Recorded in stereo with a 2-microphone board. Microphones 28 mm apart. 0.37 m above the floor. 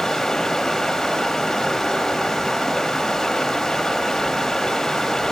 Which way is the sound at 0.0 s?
15° left (ahead or behind).